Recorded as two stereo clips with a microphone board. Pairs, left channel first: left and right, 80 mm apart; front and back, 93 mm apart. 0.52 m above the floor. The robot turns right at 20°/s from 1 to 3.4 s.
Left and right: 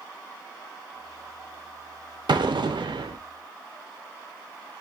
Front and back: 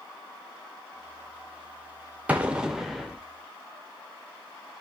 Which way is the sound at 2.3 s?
105° right.